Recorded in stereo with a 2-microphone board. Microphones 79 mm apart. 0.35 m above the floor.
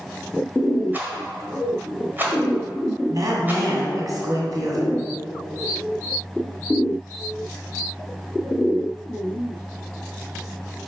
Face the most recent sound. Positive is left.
turn(degrees=-50)  # may be behind; listen again after turning